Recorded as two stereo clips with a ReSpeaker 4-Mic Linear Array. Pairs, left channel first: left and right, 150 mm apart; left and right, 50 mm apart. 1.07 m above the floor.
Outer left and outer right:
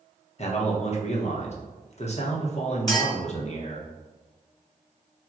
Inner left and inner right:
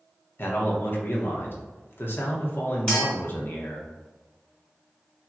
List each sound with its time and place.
0.4 s a man speaking: 50° left (ahead or behind), 0.9 m
2.9 s a clink: 25° left (ahead or behind), 1.7 m